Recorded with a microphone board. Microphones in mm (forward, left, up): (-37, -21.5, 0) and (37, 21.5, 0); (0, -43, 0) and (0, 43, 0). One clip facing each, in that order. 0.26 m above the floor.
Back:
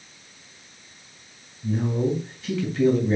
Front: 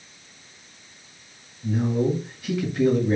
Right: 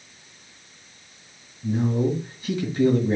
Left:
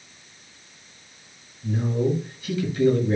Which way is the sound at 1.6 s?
45° right.